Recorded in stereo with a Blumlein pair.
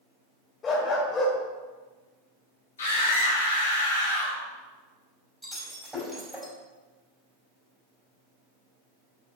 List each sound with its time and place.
0.6 s a dog barking: 20° left, 2 m
2.8 s a scream: 65° left, 3.5 m
5.4 s breaking glass: 5° right, 4 m